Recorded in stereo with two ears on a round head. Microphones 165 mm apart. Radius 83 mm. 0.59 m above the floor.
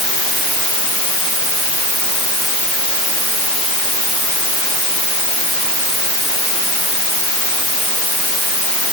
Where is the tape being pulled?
No tape being pulled in this recording.